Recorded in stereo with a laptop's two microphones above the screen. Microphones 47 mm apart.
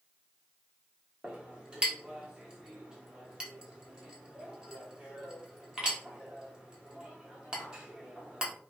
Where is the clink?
20° right (ahead or behind), 0.9 m.